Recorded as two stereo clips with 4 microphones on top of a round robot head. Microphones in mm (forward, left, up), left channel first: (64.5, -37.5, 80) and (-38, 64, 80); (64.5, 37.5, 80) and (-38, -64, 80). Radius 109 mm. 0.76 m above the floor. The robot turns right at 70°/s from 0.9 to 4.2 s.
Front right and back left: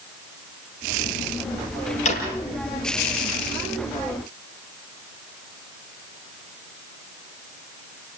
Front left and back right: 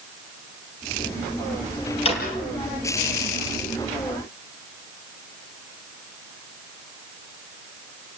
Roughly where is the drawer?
Ahead.